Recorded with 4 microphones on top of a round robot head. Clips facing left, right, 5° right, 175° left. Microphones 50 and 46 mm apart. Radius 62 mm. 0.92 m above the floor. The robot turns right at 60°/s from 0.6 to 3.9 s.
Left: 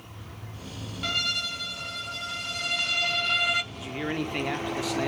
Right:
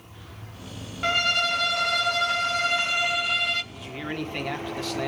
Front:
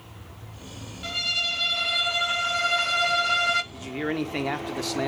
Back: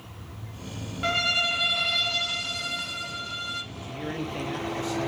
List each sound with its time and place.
1.0 s a violin: 140° right, 0.8 m; by 3.6 s 15° left, 0.8 m
3.7 s a man speaking: straight ahead, 2 m; by 5.1 s 10° left, 2 m